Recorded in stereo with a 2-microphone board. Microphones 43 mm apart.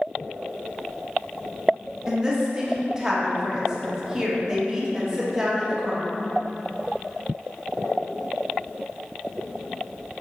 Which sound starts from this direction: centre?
A woman speaking, at 2.1 s.